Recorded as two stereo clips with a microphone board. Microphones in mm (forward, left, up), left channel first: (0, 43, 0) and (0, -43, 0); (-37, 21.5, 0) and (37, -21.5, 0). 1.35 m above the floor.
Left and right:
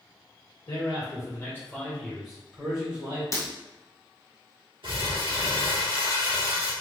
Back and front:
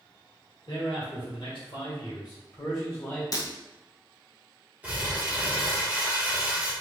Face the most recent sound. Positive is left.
turn(degrees=-105)